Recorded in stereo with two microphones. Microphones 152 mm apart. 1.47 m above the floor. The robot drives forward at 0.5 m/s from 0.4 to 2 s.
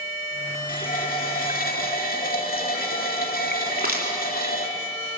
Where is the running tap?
65° left (ahead or behind), 2.5 m; by 4.7 s 75° left (ahead or behind), 2 m.